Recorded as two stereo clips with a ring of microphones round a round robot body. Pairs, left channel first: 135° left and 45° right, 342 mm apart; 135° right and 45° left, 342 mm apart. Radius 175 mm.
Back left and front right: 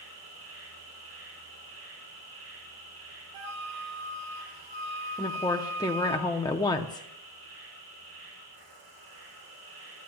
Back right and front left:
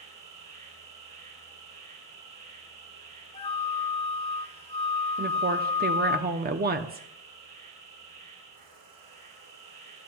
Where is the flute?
65° right, 1.5 m.